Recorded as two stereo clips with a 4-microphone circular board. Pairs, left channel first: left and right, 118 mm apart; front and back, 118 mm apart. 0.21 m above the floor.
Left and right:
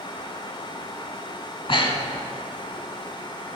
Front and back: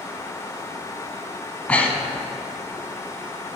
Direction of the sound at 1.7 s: 75° left.